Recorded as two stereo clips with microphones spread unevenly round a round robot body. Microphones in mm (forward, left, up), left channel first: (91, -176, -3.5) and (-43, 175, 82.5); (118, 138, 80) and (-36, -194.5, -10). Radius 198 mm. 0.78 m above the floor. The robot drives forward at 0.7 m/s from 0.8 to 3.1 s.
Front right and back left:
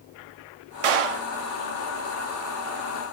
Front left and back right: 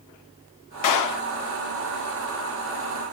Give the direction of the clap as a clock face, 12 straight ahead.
8 o'clock.